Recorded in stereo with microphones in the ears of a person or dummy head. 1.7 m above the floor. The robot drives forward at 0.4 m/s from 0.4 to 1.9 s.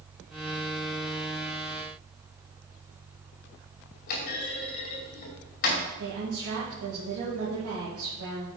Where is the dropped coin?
I don't hear a dropped coin.